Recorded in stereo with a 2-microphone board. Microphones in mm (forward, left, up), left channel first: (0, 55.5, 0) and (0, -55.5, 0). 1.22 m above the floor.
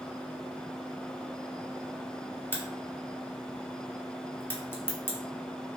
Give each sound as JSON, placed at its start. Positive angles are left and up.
{"t": 2.5, "sound": "a crack", "side_deg": 20, "distance_m": 0.8}